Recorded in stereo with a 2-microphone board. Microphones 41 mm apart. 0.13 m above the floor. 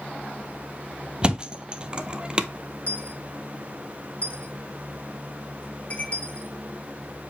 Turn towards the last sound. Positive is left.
turn(degrees=30)  # may be behind; listen again after turning